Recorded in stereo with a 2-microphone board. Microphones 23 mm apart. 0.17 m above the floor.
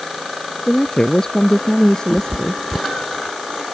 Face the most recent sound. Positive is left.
turn(degrees=60)  # may be behind; listen again after turning